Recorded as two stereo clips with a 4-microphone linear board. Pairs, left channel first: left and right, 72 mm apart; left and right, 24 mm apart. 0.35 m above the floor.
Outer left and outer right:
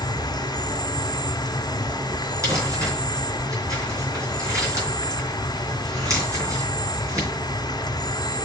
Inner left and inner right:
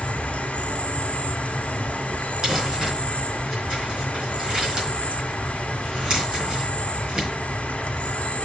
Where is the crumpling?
40° right (ahead or behind), 4.5 m.